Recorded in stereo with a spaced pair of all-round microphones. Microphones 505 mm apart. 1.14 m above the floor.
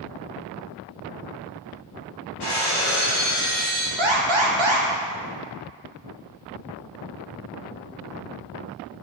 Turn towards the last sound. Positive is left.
turn(degrees=-65)  # may be behind; listen again after turning